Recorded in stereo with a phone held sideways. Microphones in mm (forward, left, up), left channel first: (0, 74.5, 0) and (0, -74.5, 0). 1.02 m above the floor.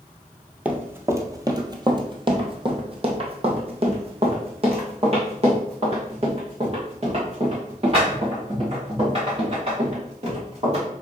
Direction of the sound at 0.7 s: 10° right (ahead or behind).